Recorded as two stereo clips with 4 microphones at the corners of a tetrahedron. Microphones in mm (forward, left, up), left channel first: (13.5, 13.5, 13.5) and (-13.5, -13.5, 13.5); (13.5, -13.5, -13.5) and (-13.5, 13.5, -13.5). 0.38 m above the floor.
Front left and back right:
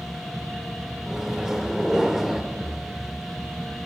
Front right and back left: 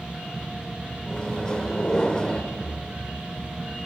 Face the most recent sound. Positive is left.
turn(degrees=-70)